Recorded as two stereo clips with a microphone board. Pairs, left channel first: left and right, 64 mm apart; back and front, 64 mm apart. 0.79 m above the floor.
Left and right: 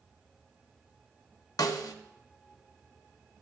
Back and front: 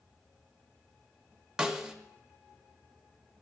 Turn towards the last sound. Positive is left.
turn(degrees=80)